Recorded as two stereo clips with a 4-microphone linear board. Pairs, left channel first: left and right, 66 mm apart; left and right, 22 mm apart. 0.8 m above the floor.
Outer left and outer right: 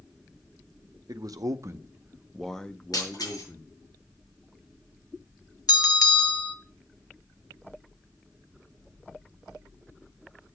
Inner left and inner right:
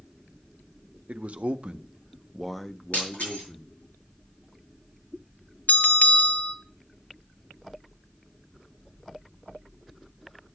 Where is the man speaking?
65° right (ahead or behind), 0.9 m; by 3.7 s 40° left (ahead or behind), 1.3 m.